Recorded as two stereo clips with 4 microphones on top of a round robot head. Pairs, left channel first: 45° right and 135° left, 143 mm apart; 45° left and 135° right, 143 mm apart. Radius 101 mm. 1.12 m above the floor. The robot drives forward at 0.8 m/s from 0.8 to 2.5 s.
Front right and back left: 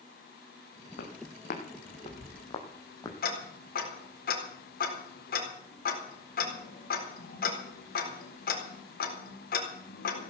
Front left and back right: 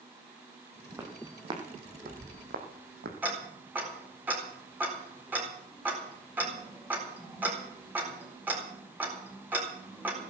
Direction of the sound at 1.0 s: 65° right.